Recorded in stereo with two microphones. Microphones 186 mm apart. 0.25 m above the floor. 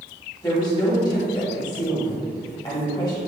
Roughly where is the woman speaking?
Left.